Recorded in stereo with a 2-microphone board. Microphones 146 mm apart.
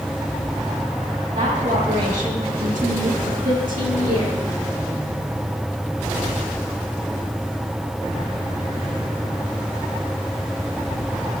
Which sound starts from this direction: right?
A woman speaking, at 1.3 s.